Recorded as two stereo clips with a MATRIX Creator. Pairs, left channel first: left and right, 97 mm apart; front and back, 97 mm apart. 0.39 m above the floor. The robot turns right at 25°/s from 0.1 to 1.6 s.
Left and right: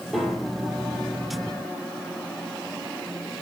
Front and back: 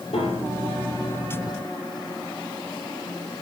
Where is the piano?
Straight ahead, 5 m; by 0.8 s 20° left, 5 m.